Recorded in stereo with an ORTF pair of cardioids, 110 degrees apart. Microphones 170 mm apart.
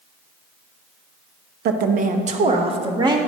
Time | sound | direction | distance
1.6 | a woman speaking | 65° right | 0.8 m